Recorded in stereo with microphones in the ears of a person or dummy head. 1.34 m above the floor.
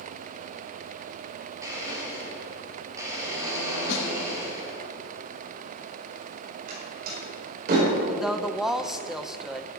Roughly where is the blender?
Centre.